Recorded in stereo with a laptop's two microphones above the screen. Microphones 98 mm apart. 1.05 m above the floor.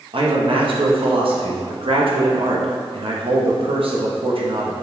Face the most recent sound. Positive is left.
turn(degrees=-65)  # may be behind; listen again after turning